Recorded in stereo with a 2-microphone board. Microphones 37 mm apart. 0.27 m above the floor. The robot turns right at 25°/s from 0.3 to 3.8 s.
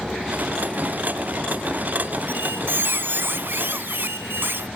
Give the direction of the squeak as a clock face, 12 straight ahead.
4 o'clock.